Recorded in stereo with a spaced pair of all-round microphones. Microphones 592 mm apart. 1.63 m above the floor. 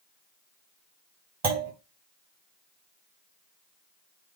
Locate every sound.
1.4 s a clunk: 55° right (ahead or behind), 1.0 m